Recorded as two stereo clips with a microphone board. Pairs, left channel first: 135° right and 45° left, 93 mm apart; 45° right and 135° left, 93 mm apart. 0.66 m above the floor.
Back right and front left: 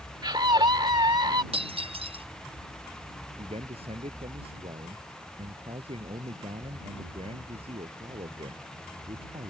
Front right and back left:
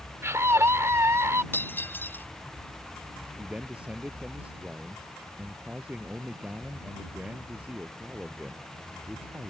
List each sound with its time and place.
0.2 s a scream: 75° left
1.5 s breaking glass: 25° left
3.4 s a man speaking: 55° left